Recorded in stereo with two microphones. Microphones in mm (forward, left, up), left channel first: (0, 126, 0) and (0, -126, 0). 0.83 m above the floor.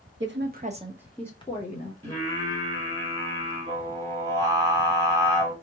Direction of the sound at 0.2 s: 50° right (ahead or behind).